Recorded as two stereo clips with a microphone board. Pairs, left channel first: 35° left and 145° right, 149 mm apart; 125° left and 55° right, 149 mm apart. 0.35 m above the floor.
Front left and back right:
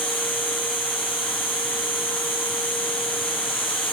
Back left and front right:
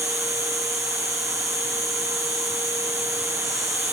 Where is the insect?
35° left, 2 m.